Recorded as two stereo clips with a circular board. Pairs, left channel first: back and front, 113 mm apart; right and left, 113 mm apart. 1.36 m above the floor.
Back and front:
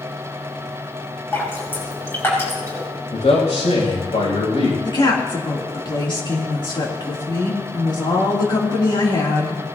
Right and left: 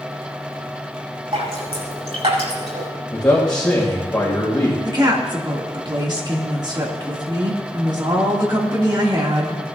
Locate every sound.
1.3 s dripping: 110° left, 5.5 m
3.1 s a man speaking: 175° right, 6 m
4.8 s a woman speaking: 135° left, 3 m